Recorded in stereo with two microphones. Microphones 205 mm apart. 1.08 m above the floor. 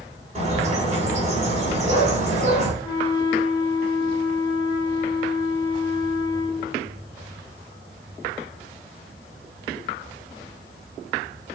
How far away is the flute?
About 4 m.